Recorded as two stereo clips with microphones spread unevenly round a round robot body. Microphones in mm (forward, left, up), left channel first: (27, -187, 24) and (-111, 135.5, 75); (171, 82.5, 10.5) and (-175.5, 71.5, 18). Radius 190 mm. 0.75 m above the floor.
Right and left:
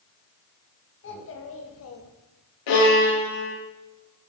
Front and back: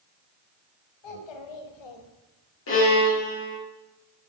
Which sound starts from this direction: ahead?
A child speaking, at 1.0 s.